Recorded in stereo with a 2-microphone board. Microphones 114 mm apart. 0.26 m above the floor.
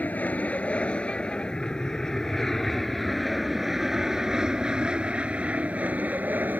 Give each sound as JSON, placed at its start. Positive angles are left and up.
{"t": 0.0, "sound": "an aircraft", "side_deg": 15}